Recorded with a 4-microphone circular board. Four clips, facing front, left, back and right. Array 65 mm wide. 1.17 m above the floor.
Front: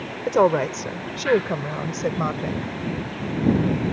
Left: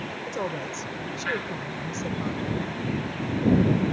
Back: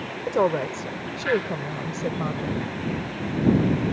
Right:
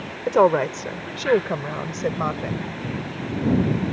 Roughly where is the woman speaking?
Right.